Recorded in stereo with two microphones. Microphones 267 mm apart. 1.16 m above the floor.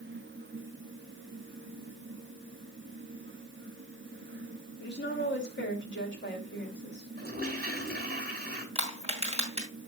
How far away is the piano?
I don't hear a piano.